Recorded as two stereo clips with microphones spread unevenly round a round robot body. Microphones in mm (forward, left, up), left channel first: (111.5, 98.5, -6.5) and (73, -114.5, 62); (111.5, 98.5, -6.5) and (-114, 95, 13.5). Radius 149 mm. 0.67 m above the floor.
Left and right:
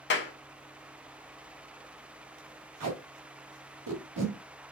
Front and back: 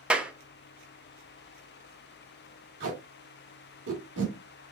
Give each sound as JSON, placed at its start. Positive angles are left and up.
{"t": 0.1, "sound": "a clap", "azimuth_deg": 95, "distance_m": 0.8}
{"t": 2.8, "sound": "tape being pulled", "azimuth_deg": -125, "distance_m": 1.8}